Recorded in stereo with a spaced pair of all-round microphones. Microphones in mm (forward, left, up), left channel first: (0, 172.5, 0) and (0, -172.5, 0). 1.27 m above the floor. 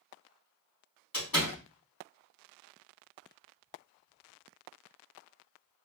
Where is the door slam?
80° left, 2.5 m.